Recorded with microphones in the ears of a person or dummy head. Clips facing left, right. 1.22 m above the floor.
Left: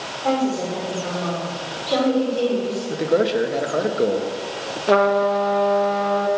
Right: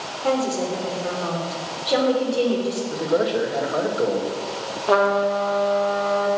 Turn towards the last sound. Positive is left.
turn(degrees=30)  # may be behind; listen again after turning